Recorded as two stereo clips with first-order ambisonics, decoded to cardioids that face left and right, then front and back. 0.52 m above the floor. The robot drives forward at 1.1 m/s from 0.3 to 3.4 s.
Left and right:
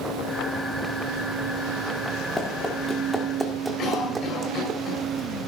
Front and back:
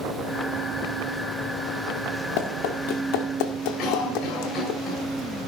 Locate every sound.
2.4 s running footsteps: 10° left, 3.5 m; by 4.8 s 30° right, 1.8 m
3.8 s a cough: 40° left, 5 m